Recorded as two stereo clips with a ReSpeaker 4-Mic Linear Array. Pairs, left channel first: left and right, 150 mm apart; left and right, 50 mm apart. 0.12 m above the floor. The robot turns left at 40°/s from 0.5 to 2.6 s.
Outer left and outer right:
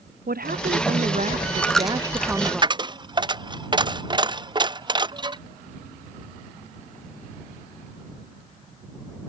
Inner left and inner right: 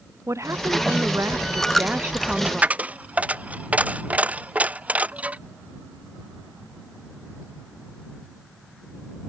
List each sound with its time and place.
0.3 s a woman speaking: 95° right; by 2.6 s 175° right
1.6 s a dropped coin: 10° left (ahead or behind); by 5.4 s 30° right (ahead or behind)